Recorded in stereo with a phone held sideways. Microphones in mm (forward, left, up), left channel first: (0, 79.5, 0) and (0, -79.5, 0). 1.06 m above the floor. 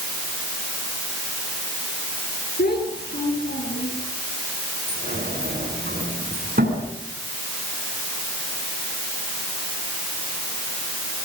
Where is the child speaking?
85° left, 9.5 m; by 4.0 s 90° left, 11.5 m.